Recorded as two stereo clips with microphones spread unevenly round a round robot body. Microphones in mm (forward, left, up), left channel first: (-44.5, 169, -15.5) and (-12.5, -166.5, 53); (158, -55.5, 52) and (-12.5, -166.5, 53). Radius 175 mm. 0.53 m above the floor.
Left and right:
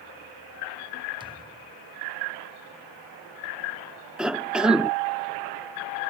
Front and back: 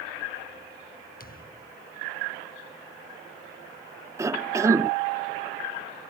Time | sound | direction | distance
1.2 | a thud | 10° right | ?
4.2 | a cough | 160° left | ?